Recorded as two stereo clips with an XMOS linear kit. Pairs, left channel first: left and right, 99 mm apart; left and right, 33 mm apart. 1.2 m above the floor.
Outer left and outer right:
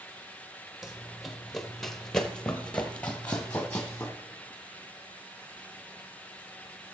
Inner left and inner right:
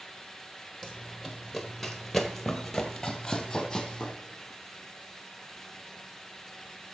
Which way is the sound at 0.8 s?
5° right (ahead or behind).